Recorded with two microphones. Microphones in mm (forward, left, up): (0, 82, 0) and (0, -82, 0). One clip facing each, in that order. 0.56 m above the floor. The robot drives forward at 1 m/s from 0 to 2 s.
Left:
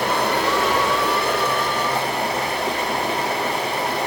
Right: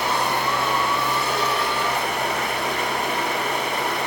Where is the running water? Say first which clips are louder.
Left 3 dB; 50° left (ahead or behind), 1.1 m; by 4.1 s 35° left (ahead or behind), 1.5 m.